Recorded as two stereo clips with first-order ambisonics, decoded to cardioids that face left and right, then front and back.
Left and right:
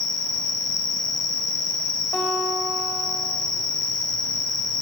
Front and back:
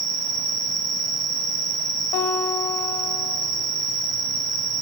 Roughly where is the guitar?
Ahead.